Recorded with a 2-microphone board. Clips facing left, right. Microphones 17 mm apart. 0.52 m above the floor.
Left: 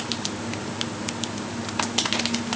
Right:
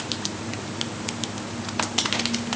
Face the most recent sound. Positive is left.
No sound to turn to.